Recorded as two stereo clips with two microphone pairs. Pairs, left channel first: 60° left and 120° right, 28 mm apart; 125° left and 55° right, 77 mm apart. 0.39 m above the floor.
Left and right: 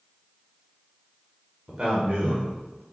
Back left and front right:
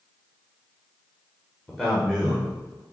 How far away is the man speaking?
About 1.0 m.